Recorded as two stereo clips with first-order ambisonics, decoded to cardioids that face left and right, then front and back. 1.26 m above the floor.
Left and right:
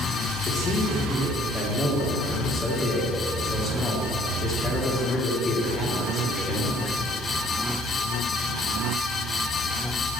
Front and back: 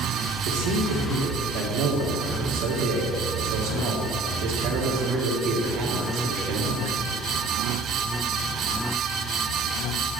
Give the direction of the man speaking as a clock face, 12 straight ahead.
7 o'clock.